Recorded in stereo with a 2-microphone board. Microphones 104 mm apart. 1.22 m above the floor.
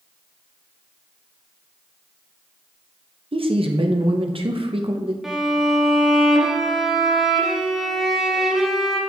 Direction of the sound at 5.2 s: 5° right (ahead or behind).